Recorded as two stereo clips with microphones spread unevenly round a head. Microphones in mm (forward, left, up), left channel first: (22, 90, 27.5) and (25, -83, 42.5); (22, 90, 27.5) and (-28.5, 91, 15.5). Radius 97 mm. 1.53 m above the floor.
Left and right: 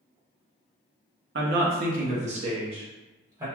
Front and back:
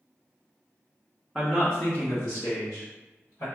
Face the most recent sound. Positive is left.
turn(degrees=-20)